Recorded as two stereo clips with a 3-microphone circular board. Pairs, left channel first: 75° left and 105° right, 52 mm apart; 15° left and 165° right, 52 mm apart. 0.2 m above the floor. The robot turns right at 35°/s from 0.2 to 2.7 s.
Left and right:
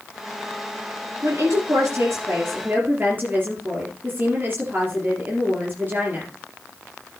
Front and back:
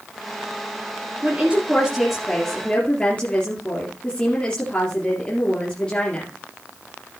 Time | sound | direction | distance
1.2 | a woman speaking | 105° right | 3.5 m